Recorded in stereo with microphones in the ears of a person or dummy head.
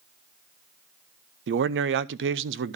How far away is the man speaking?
About 0.6 m.